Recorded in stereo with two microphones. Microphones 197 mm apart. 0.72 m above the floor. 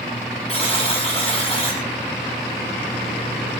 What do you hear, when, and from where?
0.5 s a buzzer: 30° left (ahead or behind), 7.5 m